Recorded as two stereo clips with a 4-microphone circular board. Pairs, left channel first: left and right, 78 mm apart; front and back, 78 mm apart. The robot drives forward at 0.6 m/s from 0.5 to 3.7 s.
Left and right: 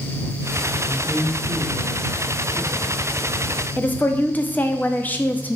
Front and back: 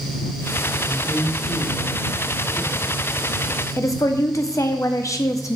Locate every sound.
0.8 s a man speaking: 10° left, 2.5 m; by 3.7 s 35° left, 1.0 m
3.8 s a woman speaking: 30° left, 0.6 m